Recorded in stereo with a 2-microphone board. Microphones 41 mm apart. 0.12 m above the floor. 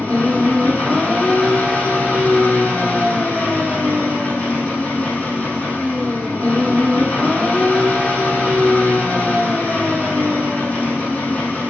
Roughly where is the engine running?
Left.